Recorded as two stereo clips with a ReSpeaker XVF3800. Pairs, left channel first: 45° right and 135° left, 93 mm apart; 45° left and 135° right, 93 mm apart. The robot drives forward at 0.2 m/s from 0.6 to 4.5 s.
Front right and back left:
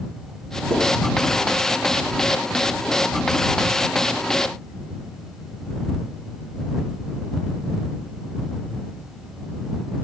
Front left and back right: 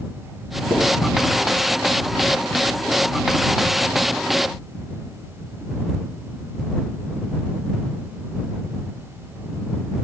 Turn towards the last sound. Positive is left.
turn(degrees=140)